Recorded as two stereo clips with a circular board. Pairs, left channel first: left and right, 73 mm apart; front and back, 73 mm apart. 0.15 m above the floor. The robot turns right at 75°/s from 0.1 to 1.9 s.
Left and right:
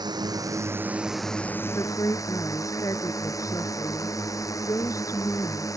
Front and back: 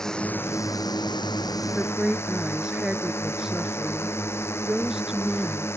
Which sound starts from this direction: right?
A drone, at 0.0 s.